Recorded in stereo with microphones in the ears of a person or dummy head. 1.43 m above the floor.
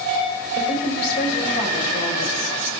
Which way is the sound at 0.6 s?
60° left (ahead or behind).